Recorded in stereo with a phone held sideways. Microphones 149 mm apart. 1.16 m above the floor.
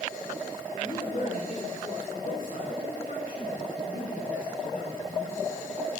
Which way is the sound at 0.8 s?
50° left (ahead or behind).